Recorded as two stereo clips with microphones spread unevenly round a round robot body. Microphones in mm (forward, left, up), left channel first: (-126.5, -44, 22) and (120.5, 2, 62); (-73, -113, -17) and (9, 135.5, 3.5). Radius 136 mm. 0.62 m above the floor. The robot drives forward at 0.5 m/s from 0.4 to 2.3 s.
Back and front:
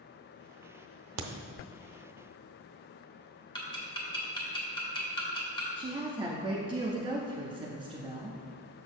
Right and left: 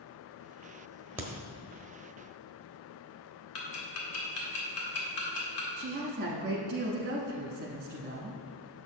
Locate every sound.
1.2 s a crack: 10° right, 0.7 m
3.5 s ticking: 105° right, 1.7 m
5.8 s a woman speaking: 80° left, 0.9 m